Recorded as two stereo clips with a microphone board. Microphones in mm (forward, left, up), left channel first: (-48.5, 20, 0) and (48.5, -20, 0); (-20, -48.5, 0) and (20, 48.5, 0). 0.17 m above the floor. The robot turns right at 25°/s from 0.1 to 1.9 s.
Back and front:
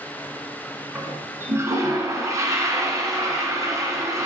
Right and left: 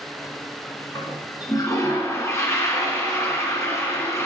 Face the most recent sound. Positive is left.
turn(degrees=-65)